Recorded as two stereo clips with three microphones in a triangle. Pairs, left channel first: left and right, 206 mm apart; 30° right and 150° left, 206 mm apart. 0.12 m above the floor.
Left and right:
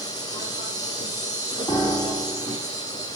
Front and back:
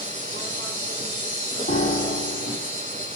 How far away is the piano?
About 2 m.